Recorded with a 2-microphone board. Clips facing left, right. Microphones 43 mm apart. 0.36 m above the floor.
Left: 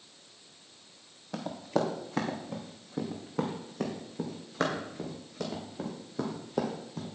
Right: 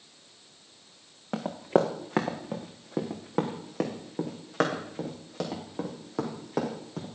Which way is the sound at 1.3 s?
65° right (ahead or behind).